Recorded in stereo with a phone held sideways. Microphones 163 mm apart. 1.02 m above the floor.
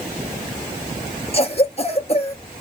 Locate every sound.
1.3 s a cough: 40° left (ahead or behind), 1.0 m